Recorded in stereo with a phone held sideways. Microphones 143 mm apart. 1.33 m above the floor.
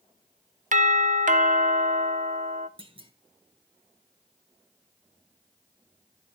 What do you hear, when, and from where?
0.7 s a doorbell: 60° right (ahead or behind), 0.8 m
2.8 s a clunk: 35° right (ahead or behind), 1.2 m